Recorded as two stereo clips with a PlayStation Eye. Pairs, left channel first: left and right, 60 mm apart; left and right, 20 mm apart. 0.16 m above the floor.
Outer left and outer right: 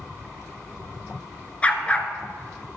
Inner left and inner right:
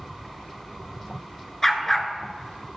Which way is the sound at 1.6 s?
20° left (ahead or behind).